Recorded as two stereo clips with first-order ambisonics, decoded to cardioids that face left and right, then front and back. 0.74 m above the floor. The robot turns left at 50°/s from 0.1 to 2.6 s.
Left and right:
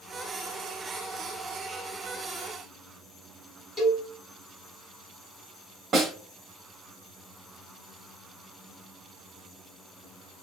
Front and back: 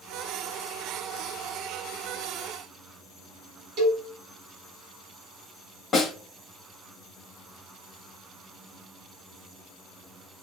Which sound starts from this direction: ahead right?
A snare drum, at 5.9 s.